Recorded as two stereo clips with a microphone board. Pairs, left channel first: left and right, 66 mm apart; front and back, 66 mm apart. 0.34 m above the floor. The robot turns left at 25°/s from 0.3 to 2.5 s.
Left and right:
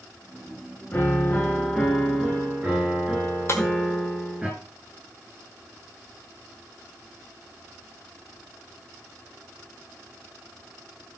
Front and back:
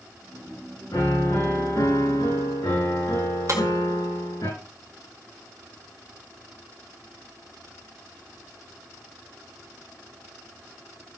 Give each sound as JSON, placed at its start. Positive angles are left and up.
{"t": 0.9, "sound": "a piano", "azimuth_deg": 30, "distance_m": 7.0}
{"t": 3.5, "sound": "breaking glass", "azimuth_deg": 140, "distance_m": 1.9}